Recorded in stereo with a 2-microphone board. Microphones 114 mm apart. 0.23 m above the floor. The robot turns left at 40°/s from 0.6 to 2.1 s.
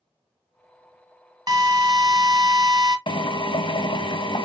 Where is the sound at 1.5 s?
35° right (ahead or behind), 0.9 m.